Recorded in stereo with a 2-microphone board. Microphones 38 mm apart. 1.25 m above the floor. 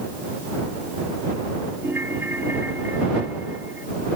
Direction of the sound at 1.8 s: 70° right (ahead or behind).